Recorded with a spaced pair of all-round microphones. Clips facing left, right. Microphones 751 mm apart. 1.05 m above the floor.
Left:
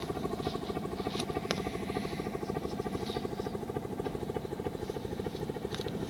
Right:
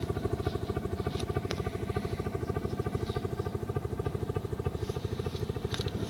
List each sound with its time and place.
0.0 s a helicopter: 45° right (ahead or behind); by 6.1 s 40° right (ahead or behind)